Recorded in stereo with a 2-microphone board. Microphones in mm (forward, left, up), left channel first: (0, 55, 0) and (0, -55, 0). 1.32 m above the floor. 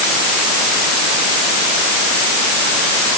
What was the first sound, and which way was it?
Only background noise.